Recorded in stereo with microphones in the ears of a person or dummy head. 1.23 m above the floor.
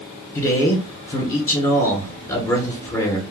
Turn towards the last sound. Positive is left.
turn(degrees=10)  # may be behind; listen again after turning